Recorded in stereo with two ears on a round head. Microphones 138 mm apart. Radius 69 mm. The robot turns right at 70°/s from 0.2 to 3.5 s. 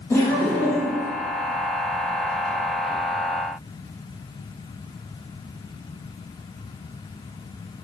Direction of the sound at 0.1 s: 20° left.